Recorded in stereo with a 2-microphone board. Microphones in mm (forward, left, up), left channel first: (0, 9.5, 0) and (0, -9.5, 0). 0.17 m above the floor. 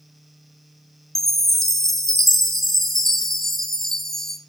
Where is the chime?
15° left (ahead or behind), 0.8 m.